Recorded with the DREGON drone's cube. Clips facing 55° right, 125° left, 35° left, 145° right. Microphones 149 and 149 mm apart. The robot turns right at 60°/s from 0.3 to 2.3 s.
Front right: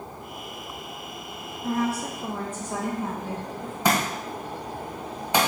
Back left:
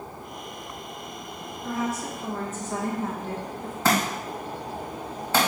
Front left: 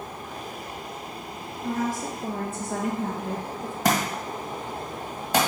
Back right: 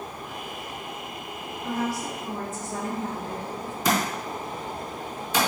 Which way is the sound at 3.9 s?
20° left.